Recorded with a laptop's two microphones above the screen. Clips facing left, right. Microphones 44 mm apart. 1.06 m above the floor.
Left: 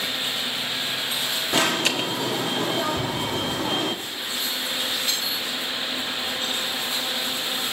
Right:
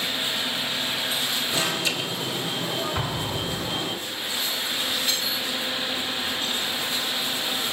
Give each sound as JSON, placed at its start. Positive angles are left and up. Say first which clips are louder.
{"t": 1.5, "sound": "an alarm", "louder": "left 7 dB", "side_deg": 65, "distance_m": 1.3}
{"t": 3.0, "sound": "an explosion", "louder": "left 2 dB", "side_deg": -25, "distance_m": 3.0}